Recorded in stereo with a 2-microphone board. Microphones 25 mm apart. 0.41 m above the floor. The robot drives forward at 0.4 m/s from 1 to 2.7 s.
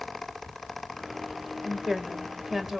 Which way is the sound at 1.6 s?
20° right (ahead or behind).